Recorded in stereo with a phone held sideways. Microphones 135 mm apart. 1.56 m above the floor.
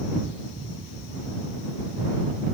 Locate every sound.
Only background noise.